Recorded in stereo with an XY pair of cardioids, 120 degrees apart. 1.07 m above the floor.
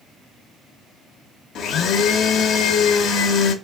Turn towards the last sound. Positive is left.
turn(degrees=65)